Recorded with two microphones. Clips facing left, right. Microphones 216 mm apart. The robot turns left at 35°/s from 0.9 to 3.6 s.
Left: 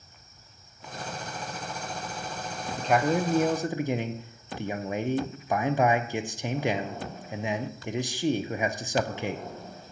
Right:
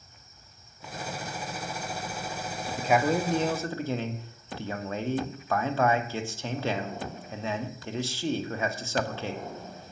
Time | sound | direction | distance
2.8 | a man speaking | 10° right (ahead or behind) | 0.8 m